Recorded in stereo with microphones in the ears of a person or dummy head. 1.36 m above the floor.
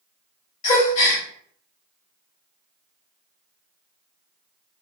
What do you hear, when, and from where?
0.6 s a gasp: 40° left (ahead or behind), 1.7 m